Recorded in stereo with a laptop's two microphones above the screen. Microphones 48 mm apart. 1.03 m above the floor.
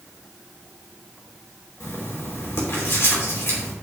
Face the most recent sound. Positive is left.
turn(degrees=65)  # may be behind; listen again after turning